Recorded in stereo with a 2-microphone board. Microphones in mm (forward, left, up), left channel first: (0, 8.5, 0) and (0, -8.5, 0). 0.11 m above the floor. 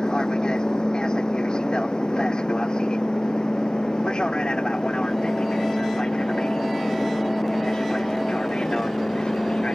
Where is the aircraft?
55° left (ahead or behind); by 9.8 s 70° left (ahead or behind).